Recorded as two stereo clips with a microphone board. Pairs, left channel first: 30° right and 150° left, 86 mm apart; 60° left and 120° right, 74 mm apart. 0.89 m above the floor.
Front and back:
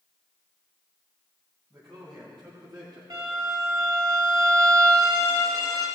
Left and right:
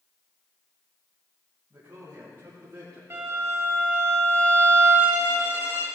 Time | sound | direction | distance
1.7 | a man speaking | straight behind | 4.5 m
3.1 | a violin | 175° right | 3.5 m